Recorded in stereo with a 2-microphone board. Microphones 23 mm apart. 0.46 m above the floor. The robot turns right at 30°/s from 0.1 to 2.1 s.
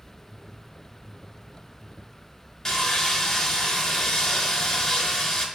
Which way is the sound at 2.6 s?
20° left (ahead or behind).